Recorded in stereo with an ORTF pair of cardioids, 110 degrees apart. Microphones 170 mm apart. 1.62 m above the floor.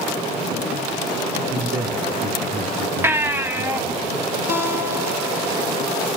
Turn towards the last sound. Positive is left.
turn(degrees=-15)